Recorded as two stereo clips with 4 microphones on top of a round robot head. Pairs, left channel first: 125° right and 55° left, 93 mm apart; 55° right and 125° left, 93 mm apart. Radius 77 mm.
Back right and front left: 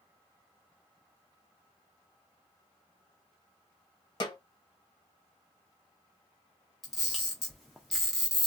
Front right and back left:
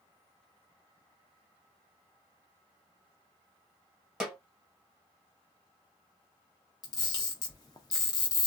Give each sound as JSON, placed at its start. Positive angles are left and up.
{"t": 4.2, "sound": "a snare drum", "azimuth_deg": -155, "distance_m": 1.5}
{"t": 6.8, "sound": "a camera shutter", "azimuth_deg": -40, "distance_m": 0.5}